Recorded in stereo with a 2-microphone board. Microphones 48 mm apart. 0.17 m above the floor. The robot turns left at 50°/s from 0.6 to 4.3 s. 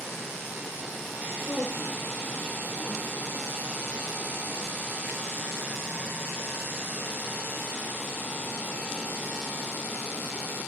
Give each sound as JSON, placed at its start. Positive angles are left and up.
{"t": 1.4, "sound": "a woman speaking", "azimuth_deg": 80, "distance_m": 4.0}